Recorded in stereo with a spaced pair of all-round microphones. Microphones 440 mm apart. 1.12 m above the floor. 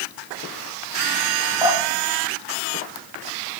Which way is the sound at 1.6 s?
10° right (ahead or behind).